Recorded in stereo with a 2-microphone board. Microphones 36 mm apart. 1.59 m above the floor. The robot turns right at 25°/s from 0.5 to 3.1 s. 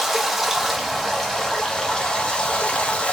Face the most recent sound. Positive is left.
turn(degrees=60)